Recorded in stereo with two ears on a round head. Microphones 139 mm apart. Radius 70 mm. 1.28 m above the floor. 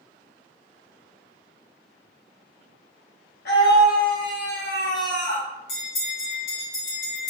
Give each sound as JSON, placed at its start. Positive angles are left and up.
{"t": 3.5, "sound": "a scream", "side_deg": 70, "distance_m": 1.6}
{"t": 5.7, "sound": "a bell", "side_deg": 85, "distance_m": 1.9}